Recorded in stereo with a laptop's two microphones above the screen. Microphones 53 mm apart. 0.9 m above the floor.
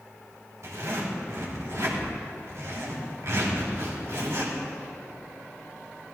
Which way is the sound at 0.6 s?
70° right (ahead or behind).